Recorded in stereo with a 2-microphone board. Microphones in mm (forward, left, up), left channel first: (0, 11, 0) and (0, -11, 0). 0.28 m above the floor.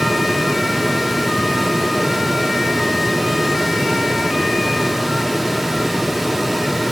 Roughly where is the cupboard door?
I don't hear a cupboard door.